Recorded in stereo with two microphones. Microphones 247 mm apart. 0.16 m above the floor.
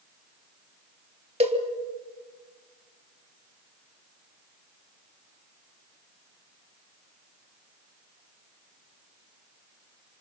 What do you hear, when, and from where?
1.4 s a cowbell: 25° right (ahead or behind), 2.5 m